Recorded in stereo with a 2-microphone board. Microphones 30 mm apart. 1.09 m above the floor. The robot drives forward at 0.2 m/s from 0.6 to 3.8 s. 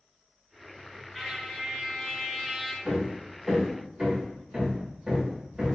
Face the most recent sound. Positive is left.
turn(degrees=-15)  # may be behind; listen again after turning